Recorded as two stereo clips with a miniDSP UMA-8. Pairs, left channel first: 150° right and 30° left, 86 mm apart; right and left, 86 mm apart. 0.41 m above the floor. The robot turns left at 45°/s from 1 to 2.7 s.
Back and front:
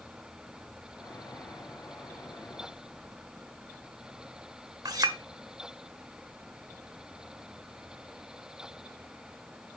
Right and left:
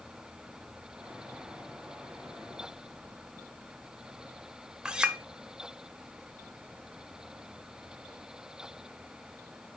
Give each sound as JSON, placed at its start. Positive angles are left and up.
{"t": 4.8, "sound": "a clink", "azimuth_deg": 10, "distance_m": 0.8}